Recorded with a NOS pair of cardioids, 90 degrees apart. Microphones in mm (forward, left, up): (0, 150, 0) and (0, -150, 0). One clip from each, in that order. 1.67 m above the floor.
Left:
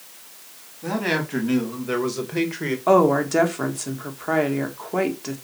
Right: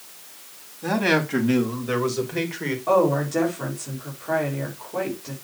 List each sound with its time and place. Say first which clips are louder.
0.8 s a man speaking: right 3 dB; 20° right, 3 m; by 2.8 s 15° left, 2 m
2.9 s a woman speaking: left 3 dB; 60° left, 2.5 m